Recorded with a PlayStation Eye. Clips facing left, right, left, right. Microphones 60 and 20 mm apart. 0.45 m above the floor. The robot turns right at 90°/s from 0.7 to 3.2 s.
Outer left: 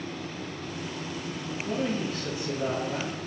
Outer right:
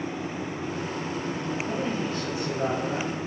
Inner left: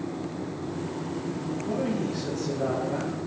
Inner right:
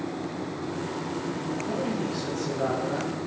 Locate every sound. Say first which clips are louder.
1.6 s a man speaking: outer left 3 dB, inner left 2 dB; 165° right, 2 m; by 3.1 s 35° right, 2 m